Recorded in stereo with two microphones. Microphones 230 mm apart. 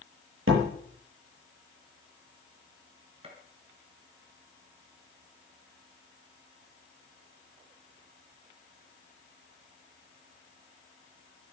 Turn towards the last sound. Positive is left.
turn(degrees=-25)  # may be behind; listen again after turning